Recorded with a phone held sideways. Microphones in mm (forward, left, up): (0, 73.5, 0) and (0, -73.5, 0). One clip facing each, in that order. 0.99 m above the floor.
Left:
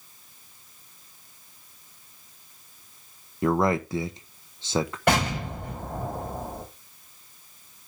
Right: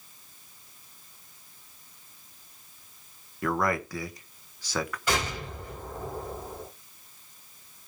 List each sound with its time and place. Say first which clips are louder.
3.4 s a man speaking: left 5 dB; 25° left (ahead or behind), 1.0 m
5.1 s an explosion: left 9 dB; 65° left (ahead or behind), 5.5 m